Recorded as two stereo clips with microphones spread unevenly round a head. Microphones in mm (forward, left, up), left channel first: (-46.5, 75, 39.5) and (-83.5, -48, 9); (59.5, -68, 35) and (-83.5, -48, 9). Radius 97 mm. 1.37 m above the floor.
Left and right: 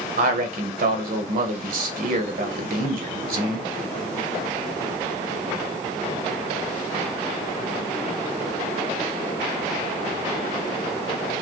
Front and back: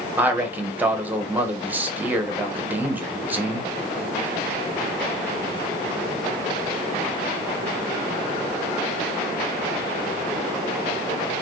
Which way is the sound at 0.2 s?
110° right.